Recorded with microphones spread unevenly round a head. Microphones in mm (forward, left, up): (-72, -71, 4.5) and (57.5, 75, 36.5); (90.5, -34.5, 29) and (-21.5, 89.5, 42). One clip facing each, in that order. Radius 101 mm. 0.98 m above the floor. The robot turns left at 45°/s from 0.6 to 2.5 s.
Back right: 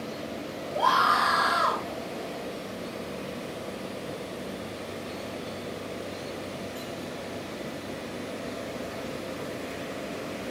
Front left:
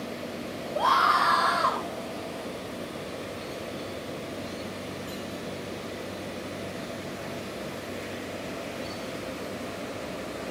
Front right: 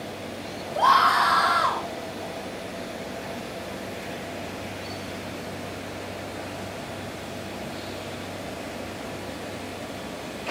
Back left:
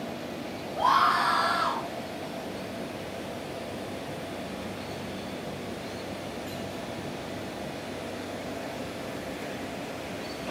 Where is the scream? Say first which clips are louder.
Even, front right 4 dB; 40° right, 4.5 m; by 1.8 s 90° right, 4.5 m.